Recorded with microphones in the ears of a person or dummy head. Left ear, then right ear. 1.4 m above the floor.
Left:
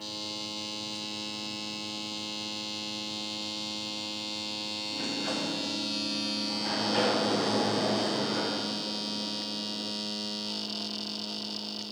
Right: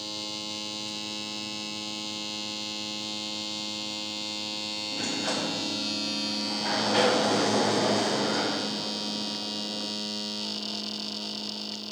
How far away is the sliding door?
About 0.5 m.